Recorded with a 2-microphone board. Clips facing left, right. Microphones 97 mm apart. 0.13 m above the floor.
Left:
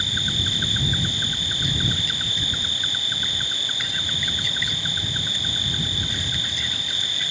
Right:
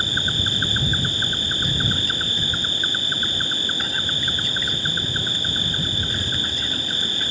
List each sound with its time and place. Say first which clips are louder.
0.0 s an insect: right 3 dB; 45° right (ahead or behind)